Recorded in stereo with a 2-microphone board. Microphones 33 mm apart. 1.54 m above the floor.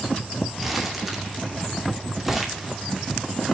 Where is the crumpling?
10° right (ahead or behind), 2 m.